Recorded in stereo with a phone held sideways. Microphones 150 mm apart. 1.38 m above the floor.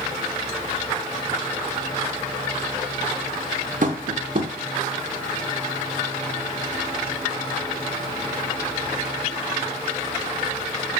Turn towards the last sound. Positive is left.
turn(degrees=-60)  # may be behind; listen again after turning